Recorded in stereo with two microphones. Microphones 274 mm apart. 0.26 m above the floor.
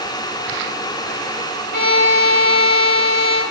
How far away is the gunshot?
I don't hear a gunshot.